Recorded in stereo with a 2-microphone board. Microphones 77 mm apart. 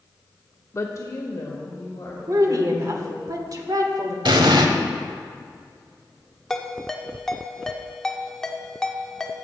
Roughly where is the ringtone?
Centre.